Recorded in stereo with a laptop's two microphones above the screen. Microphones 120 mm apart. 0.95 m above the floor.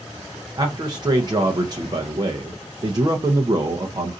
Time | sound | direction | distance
0.6 | a man speaking | 35° right (ahead or behind) | 0.7 m